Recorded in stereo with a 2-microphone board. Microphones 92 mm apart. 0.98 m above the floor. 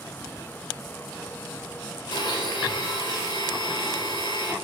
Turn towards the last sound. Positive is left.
turn(degrees=50)  # may be behind; listen again after turning